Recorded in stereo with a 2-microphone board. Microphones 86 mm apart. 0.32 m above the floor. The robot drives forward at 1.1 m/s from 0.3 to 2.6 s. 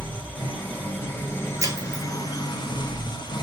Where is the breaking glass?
35° right (ahead or behind), 1.4 m; by 2.0 s 55° right (ahead or behind), 1.0 m.